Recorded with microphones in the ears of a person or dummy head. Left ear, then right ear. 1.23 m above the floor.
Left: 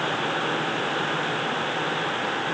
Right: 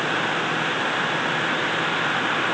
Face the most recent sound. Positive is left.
No sound to turn to.